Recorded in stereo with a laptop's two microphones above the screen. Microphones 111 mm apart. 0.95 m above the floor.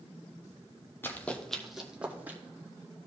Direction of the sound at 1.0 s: 20° left (ahead or behind).